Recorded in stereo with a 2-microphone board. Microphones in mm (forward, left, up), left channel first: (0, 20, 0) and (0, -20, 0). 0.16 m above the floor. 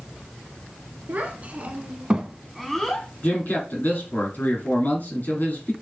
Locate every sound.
1.1 s a child speaking: 45° right (ahead or behind), 1.0 m; by 3.1 s 15° left (ahead or behind), 0.7 m
3.2 s a man speaking: 45° left (ahead or behind), 2.5 m